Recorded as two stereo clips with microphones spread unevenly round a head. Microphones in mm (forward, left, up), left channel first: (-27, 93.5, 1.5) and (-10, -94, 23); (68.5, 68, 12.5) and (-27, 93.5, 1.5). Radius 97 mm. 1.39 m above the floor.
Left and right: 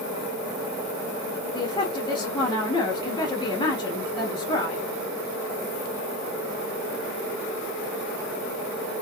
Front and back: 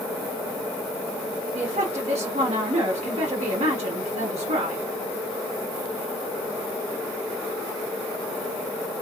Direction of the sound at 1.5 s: 160° left.